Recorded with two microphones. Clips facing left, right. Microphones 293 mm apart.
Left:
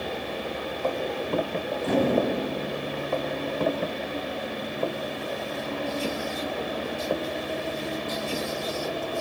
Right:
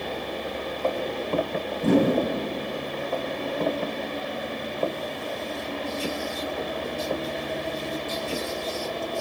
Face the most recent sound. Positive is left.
turn(degrees=-55)  # may be behind; listen again after turning